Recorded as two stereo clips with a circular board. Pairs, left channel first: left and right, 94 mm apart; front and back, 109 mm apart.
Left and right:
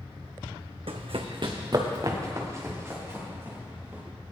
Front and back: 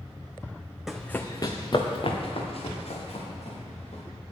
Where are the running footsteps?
95° right, 1.0 m; by 4.0 s 20° right, 4.5 m.